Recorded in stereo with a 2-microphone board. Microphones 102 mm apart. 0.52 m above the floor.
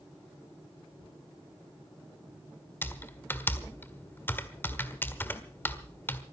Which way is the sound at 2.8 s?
20° left (ahead or behind).